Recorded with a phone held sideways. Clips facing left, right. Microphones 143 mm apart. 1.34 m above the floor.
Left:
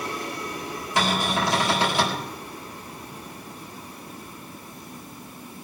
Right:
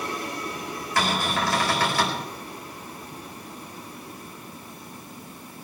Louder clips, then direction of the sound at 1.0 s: Left 1 dB; 20° left (ahead or behind).